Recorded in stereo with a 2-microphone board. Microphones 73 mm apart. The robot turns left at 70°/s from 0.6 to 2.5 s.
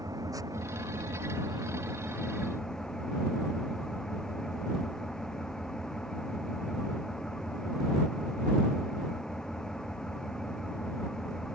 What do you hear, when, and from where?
0.0 s an engine running: 55° right; by 11.6 s 170° left